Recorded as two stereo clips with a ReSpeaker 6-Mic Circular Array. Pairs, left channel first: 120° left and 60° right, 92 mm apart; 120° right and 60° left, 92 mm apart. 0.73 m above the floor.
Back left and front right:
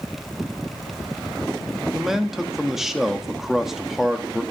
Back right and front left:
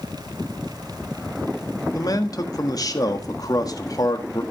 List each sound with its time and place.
1.9 s a man speaking: 145° right, 1.4 m